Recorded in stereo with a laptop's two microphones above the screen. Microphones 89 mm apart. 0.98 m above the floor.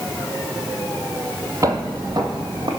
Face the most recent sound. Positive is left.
turn(degrees=-55)  # may be behind; listen again after turning